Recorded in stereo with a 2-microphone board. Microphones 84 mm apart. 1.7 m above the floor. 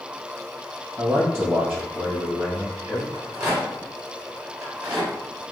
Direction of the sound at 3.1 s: 35° right (ahead or behind).